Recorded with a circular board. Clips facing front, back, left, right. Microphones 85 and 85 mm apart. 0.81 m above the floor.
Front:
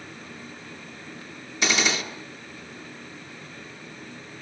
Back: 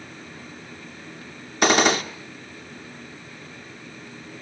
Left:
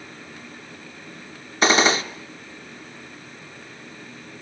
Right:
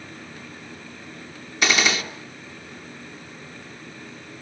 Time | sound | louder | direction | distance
1.6 | a gunshot | back 7 dB, left 4 dB | 145° left | 1.3 m